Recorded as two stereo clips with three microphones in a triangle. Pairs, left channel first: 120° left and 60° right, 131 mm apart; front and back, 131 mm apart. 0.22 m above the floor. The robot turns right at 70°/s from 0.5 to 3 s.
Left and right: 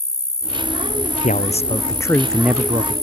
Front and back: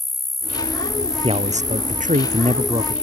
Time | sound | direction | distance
0.0 | an insect | 90° left | ?
1.2 | a man speaking | 135° left | ?